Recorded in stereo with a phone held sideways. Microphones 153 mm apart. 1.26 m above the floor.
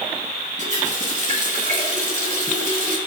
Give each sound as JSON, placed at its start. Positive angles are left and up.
{"t": 0.6, "sound": "a running tap", "side_deg": -50, "distance_m": 2.0}